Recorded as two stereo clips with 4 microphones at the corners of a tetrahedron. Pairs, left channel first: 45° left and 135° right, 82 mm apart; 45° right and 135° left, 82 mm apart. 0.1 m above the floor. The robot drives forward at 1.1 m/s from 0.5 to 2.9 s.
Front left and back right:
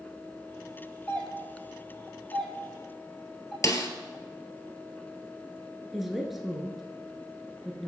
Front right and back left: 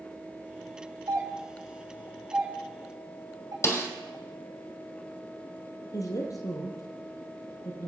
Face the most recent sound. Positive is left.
turn(degrees=-50)